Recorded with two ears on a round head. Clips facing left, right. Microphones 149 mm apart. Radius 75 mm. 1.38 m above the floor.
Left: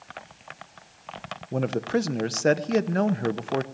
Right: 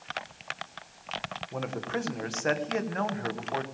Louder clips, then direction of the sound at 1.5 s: Left 9 dB; 40° left (ahead or behind).